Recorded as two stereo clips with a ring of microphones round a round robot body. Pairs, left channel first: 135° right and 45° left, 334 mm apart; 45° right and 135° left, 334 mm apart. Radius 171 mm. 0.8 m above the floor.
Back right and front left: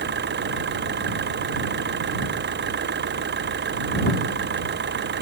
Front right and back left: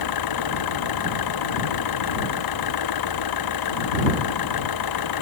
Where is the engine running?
15° right.